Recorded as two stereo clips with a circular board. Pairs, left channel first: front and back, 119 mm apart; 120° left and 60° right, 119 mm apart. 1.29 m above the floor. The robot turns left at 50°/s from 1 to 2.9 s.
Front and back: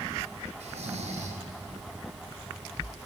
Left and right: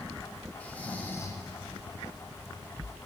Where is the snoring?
160° right, 0.9 m; by 1.4 s 175° left, 0.9 m.